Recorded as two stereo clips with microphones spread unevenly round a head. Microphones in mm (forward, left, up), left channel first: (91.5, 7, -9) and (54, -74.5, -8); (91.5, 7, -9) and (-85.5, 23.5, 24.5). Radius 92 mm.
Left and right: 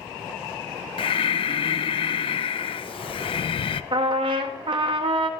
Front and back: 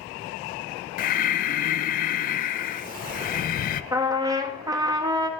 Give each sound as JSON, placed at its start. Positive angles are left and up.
{"t": 1.0, "sound": "breathing", "azimuth_deg": 40, "distance_m": 0.5}
{"t": 3.9, "sound": "a trumpet", "azimuth_deg": -125, "distance_m": 0.8}